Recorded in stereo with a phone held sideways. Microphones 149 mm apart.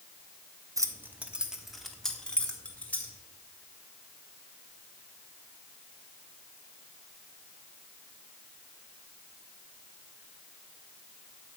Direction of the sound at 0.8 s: 20° right (ahead or behind).